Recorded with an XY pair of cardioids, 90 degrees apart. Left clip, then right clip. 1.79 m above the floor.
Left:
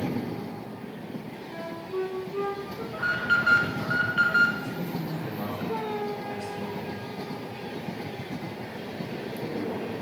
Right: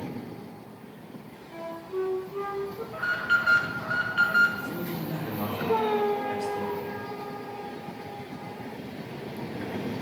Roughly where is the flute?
Ahead left.